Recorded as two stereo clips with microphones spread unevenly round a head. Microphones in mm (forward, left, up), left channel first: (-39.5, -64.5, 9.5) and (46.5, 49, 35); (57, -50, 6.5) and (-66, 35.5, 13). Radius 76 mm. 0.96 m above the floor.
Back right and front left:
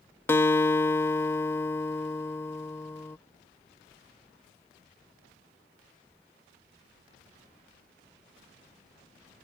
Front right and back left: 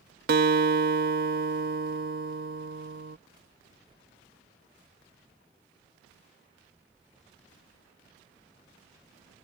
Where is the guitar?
165° left.